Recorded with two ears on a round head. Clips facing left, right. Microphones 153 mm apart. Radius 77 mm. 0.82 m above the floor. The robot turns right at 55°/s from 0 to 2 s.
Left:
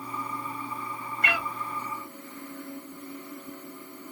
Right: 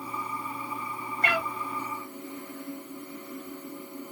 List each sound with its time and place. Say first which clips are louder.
1.2 s a cat meowing: right 2 dB; 30° right (ahead or behind), 0.9 m; by 1.5 s 40° right (ahead or behind), 0.9 m